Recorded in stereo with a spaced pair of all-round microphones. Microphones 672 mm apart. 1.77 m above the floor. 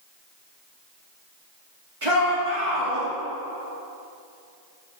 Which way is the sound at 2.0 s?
50° right (ahead or behind).